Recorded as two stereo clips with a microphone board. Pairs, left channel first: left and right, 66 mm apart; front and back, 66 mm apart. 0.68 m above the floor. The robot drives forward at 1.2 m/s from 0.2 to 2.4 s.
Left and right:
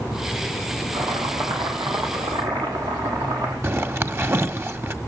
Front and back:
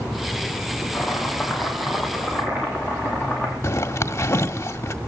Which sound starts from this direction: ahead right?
A zipper, at 3.6 s.